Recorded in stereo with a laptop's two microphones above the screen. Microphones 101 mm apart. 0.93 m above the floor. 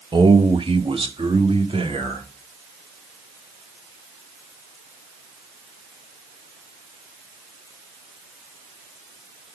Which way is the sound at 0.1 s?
50° right (ahead or behind).